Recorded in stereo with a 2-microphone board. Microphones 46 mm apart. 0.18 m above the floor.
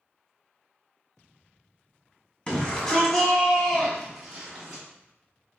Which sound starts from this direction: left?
A shout, at 2.5 s.